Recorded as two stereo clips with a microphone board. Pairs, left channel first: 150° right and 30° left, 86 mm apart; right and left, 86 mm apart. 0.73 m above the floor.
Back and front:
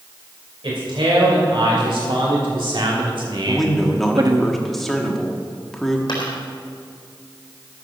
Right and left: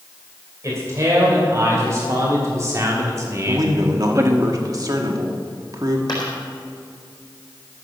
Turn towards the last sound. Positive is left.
turn(degrees=-120)